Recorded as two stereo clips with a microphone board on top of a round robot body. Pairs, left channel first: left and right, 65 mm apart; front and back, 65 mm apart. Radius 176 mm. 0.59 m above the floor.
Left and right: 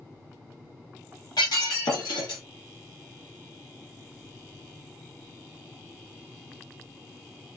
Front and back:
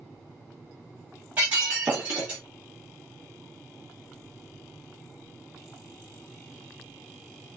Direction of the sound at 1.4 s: 110° left.